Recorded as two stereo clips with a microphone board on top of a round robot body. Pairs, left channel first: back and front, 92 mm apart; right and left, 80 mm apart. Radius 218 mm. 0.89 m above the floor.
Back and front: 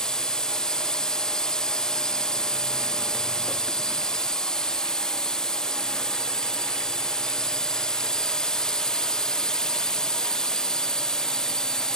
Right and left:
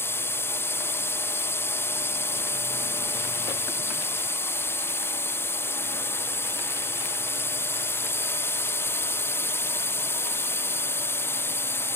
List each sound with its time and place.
0.0 s a drone: 105° right